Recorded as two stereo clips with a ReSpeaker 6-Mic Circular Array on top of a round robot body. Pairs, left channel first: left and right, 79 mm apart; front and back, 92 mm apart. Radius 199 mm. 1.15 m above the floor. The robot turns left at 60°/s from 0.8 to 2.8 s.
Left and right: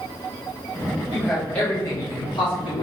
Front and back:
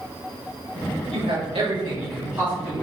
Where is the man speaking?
170° right, 4.5 m; by 2.8 s 90° left, 4.5 m.